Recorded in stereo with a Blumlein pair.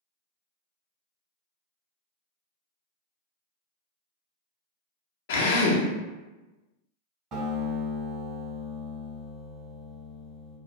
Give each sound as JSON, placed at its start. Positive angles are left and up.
{"t": 5.3, "sound": "a drill", "azimuth_deg": 55, "distance_m": 0.5}
{"t": 7.3, "sound": "a guitar", "azimuth_deg": -30, "distance_m": 1.6}